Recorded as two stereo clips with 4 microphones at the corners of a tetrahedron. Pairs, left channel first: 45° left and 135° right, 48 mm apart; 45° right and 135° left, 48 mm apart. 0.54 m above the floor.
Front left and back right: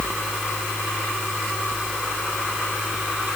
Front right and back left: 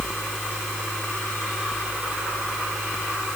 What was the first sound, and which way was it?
Only background noise.